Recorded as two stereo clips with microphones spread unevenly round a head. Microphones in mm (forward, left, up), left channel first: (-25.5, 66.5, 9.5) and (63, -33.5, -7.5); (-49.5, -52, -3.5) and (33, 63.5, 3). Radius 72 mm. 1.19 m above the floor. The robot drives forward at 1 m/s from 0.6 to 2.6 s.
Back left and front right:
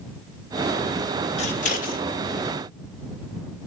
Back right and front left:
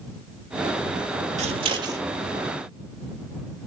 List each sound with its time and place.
1.4 s scissors: 95° left, 1.3 m; by 2.0 s 120° left, 1.5 m